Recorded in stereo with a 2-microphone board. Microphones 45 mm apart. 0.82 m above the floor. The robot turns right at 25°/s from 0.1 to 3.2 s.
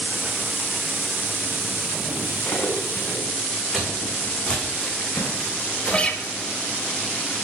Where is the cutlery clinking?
50° left (ahead or behind), 3.5 m; by 3.2 s 70° left (ahead or behind), 3.5 m.